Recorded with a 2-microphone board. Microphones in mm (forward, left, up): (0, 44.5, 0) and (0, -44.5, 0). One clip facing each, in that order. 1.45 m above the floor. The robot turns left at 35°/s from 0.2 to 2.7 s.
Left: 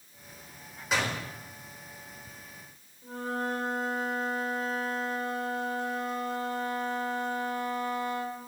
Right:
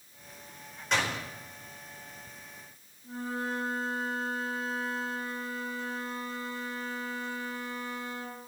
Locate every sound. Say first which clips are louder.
0.9 s a door slam: even; 5° left (ahead or behind), 4 m; by 1.2 s 15° left (ahead or behind), 4 m
3.0 s a flute: left 2 dB; 65° left (ahead or behind), 3 m